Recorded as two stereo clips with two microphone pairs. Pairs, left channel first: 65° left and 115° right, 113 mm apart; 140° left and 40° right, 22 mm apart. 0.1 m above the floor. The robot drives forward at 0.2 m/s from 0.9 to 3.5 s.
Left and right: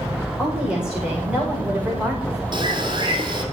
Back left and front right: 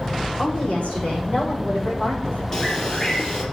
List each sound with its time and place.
0.4 s a woman speaking: 165° left, 8 m
2.5 s a bird: 155° right, 3 m